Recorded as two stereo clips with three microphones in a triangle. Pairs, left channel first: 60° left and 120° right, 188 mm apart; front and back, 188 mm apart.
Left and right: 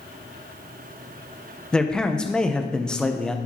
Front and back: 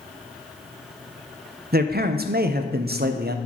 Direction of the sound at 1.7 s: 145° left.